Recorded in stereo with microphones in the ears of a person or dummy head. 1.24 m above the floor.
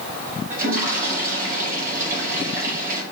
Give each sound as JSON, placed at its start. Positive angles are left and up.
{"t": 0.5, "sound": "a toilet flushing", "side_deg": -50, "distance_m": 5.0}